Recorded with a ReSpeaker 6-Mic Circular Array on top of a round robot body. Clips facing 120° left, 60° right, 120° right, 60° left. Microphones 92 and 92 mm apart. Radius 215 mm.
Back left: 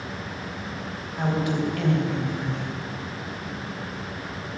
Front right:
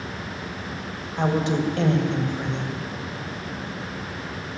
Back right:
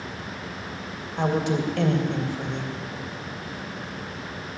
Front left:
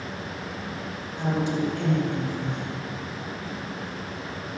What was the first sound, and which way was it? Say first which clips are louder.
A woman speaking: front right 3 dB, back right 2 dB; 120° right.